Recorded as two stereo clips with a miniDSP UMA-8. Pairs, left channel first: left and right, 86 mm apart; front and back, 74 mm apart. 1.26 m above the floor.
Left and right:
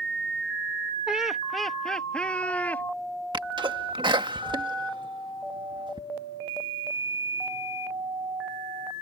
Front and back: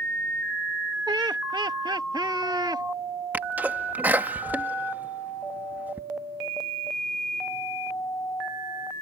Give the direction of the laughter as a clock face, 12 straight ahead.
6 o'clock.